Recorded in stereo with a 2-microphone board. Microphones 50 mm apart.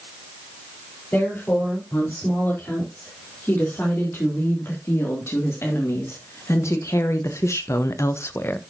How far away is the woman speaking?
About 5 m.